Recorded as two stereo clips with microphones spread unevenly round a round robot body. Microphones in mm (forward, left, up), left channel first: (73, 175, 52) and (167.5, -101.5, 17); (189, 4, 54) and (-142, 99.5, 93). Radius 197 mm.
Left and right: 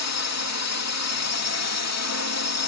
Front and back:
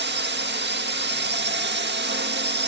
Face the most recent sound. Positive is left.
turn(degrees=105)